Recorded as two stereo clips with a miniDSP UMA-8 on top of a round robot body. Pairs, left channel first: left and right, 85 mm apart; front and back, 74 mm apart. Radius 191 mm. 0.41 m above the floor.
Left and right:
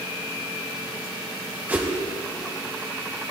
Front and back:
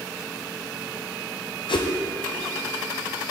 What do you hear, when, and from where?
1.7 s a whoosh: 15° right, 0.8 m